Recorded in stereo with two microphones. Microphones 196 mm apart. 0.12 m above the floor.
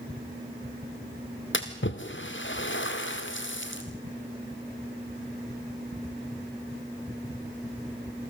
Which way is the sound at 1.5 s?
80° left.